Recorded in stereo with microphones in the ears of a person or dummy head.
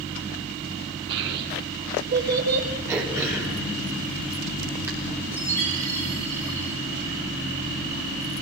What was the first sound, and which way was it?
A child speaking, 65° right (ahead or behind).